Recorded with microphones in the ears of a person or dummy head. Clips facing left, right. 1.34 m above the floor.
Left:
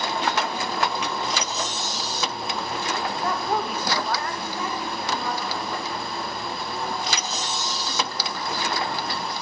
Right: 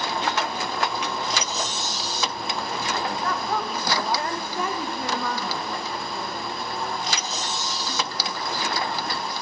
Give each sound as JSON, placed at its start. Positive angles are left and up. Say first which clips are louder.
{"t": 3.2, "sound": "a woman speaking", "louder": "left 2 dB", "side_deg": 30, "distance_m": 1.8}